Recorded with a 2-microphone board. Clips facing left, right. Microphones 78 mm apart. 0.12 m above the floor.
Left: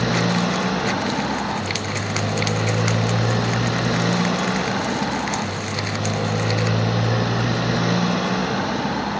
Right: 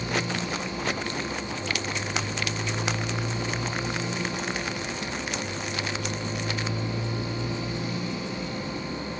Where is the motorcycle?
85° left.